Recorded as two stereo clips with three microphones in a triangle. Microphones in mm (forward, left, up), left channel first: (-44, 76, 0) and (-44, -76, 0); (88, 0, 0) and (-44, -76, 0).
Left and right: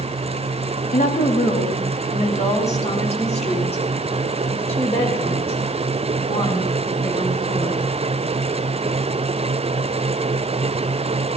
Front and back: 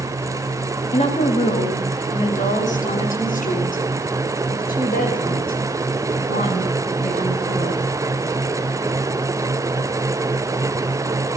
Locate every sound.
0.9 s a woman speaking: 70° left, 2 m; by 7.8 s 35° left, 7 m